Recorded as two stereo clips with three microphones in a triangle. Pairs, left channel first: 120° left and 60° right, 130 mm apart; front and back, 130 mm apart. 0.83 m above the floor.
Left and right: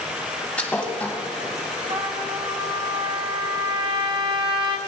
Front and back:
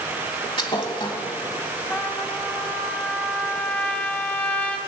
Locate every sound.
0.6 s a thud: 45° left, 1.0 m
1.9 s a trumpet: 70° right, 0.8 m